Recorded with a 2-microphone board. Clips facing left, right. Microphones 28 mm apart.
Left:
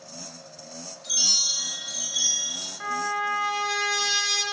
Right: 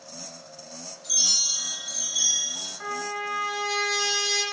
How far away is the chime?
About 1.6 m.